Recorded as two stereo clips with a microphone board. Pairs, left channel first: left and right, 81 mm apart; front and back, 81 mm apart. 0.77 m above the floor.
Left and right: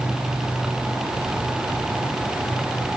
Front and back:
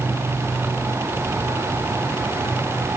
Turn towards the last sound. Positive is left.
No sound to turn to.